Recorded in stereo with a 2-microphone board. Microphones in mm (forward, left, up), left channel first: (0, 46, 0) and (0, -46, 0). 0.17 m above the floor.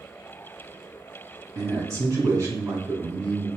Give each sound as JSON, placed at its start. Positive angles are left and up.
{"t": 1.6, "sound": "a man speaking", "side_deg": -35, "distance_m": 1.7}